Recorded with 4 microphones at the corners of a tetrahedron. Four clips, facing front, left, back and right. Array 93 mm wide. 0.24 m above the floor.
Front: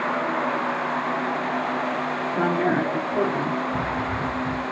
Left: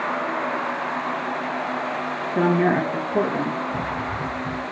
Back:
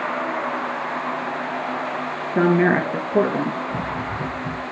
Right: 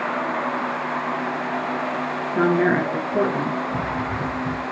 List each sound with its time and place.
2.4 s a woman speaking: 175° left, 5 m; by 3.6 s straight behind, 6 m
3.7 s running footsteps: 170° right, 7 m